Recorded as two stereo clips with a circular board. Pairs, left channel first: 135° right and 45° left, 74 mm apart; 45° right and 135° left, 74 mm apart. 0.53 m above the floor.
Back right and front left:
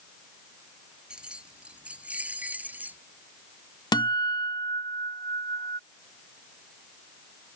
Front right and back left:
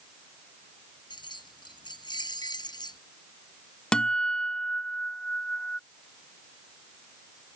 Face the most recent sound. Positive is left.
turn(degrees=-125)